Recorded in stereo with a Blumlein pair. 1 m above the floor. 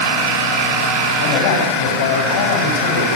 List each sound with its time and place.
1.2 s a man speaking: 45° left, 6 m; by 3.1 s 55° left, 5 m